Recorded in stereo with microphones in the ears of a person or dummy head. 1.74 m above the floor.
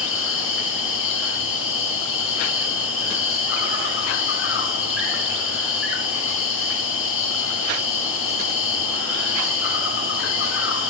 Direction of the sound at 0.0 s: 60° left (ahead or behind).